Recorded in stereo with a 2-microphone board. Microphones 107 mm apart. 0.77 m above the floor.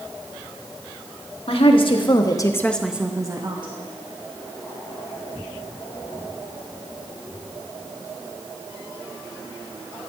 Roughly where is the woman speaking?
Left.